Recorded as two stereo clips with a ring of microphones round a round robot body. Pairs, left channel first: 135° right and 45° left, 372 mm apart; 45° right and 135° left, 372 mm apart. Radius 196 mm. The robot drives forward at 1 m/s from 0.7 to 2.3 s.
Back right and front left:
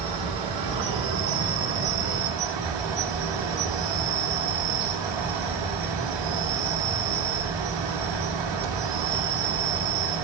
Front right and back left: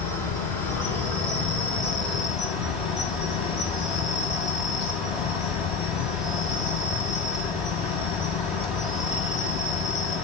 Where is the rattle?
I don't hear a rattle.